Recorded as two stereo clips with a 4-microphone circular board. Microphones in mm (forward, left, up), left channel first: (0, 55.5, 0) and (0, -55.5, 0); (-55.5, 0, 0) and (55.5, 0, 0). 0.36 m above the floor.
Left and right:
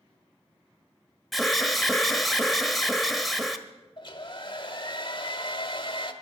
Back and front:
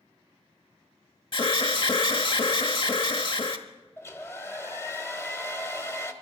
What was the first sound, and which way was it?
An alarm, straight behind.